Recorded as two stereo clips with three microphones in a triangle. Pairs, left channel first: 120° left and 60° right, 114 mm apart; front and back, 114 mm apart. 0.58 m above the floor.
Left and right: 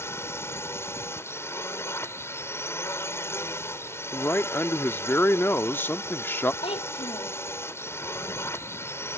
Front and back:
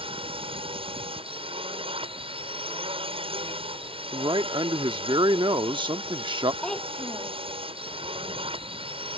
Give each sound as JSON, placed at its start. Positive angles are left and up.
{"t": 0.0, "sound": "a drone", "azimuth_deg": -175}
{"t": 4.1, "sound": "a man speaking", "azimuth_deg": -175}
{"t": 6.6, "sound": "a child speaking", "azimuth_deg": 85}